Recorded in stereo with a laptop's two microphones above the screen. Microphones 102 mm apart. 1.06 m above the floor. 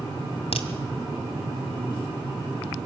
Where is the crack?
75° left (ahead or behind), 2.5 m.